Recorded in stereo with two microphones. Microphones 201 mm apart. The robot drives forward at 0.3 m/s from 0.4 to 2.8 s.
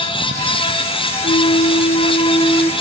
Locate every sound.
1.2 s a flute: 55° left (ahead or behind), 0.6 m; by 2.7 s 30° left (ahead or behind), 0.9 m